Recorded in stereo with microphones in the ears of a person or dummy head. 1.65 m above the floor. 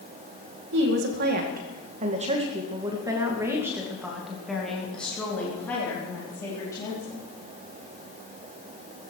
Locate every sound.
0.7 s a woman speaking: 65° right (ahead or behind), 2.5 m; by 7.2 s 15° left (ahead or behind), 4.5 m